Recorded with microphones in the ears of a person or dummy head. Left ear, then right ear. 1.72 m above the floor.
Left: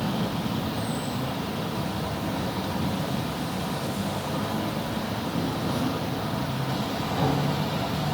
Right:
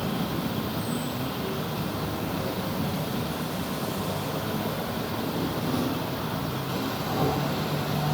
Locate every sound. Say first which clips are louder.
0.0 s an insect: left 1 dB; 25° right (ahead or behind), 1.8 m